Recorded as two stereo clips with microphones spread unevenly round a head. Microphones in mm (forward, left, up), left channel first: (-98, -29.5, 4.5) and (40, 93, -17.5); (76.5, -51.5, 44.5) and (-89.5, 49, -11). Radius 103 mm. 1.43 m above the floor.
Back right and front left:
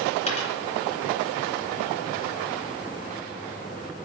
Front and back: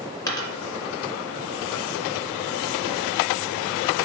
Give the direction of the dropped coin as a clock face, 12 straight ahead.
3 o'clock.